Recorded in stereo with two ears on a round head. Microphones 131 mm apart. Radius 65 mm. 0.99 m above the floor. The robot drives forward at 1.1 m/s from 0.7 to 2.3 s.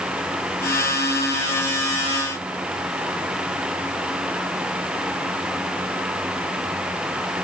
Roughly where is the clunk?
No clunk in this recording.